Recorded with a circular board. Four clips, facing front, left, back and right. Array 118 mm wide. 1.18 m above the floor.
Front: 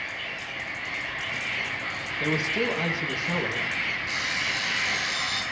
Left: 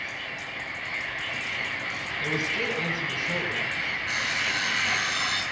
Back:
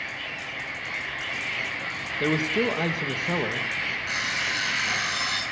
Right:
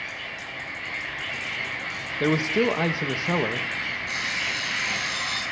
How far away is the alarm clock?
About 7.5 m.